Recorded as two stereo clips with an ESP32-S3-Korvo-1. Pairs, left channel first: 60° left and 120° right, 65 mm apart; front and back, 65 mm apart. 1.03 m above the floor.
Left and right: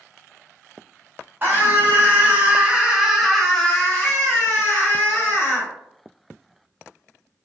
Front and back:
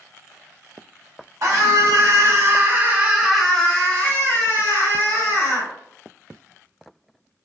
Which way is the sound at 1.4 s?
170° right.